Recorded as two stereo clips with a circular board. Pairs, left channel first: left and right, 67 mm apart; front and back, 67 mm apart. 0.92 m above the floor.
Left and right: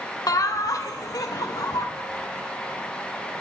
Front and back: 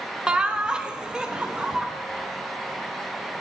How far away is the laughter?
About 0.8 m.